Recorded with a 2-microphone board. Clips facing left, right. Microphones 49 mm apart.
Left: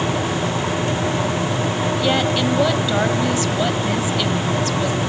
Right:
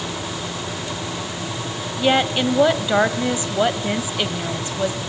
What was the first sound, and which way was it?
A woman speaking, 20° right (ahead or behind).